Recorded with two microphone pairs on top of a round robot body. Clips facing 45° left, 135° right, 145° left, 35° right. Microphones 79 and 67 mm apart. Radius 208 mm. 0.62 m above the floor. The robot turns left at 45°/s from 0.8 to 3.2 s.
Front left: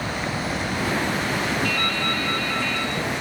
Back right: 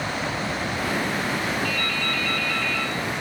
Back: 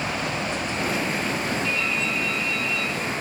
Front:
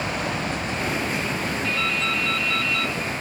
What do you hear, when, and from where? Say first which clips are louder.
1.6 s dripping: front left 2 dB, front 1 dB; 5° left, 0.6 m; by 3.2 s 65° right, 0.6 m